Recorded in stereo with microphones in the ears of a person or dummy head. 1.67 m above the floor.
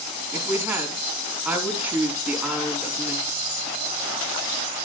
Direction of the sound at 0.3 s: 15° right (ahead or behind).